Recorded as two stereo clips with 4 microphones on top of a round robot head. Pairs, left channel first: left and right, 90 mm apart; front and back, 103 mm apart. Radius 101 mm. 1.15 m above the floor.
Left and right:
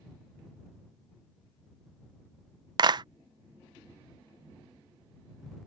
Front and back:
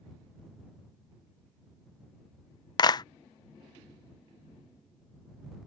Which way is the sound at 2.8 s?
50° right.